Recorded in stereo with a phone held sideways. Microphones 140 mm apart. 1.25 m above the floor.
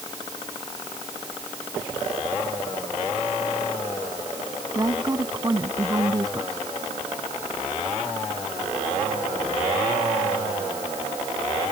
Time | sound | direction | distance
4.8 | a woman speaking | 25° right (ahead or behind) | ?